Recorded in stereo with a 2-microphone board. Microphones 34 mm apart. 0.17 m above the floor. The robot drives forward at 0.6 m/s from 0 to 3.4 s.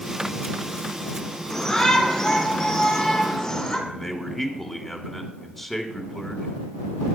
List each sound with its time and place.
1.5 s a shout: 15° left (ahead or behind), 2 m; by 3.8 s 20° left (ahead or behind), 1.7 m
3.9 s a man speaking: 5° left (ahead or behind), 1.2 m